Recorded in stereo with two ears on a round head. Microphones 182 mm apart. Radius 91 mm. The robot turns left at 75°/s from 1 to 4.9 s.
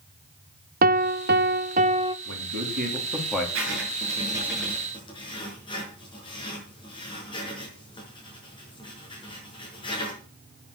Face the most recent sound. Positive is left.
turn(degrees=25)  # may be behind; listen again after turning